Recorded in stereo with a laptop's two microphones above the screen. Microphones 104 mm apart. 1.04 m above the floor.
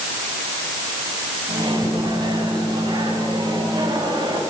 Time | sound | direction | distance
1.5 | a microwave | 45° right (ahead or behind) | 7 m